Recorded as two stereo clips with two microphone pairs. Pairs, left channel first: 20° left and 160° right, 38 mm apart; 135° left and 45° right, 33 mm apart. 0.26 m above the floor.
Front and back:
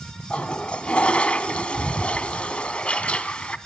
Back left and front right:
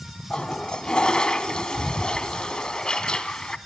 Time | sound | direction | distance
0.3 | a toilet flushing | 75° left | 0.7 m